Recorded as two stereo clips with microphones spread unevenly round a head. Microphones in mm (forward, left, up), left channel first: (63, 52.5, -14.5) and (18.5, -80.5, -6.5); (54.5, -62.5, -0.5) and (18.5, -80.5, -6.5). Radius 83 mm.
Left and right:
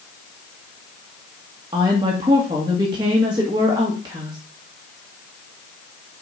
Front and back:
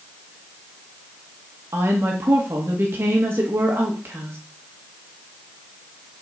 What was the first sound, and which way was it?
A woman speaking, 175° right.